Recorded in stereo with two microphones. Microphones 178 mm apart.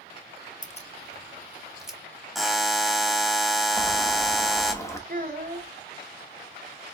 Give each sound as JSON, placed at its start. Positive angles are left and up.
{"t": 0.6, "sound": "keys jangling", "side_deg": 45, "distance_m": 0.5}
{"t": 2.4, "sound": "a buzzer", "side_deg": 0, "distance_m": 0.7}
{"t": 3.7, "sound": "boiling", "side_deg": 15, "distance_m": 1.0}
{"t": 5.1, "sound": "a child speaking", "side_deg": -50, "distance_m": 2.0}